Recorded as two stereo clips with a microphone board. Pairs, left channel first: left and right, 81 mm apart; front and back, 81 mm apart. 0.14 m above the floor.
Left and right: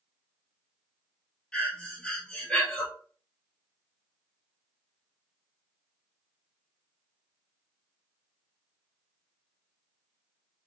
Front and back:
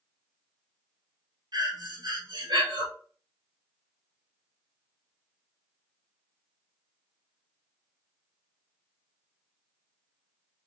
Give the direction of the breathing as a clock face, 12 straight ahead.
6 o'clock.